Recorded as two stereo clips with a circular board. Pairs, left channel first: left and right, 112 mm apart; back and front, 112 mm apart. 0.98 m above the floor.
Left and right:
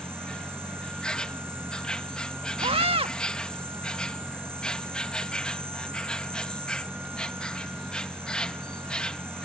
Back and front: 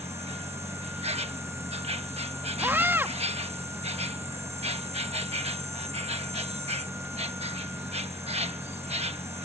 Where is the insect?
10° left.